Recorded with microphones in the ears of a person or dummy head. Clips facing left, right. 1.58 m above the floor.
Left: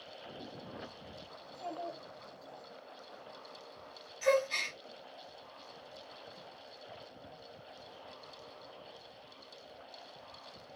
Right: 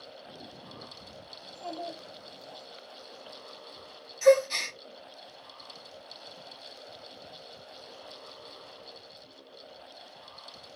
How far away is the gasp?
About 1.0 m.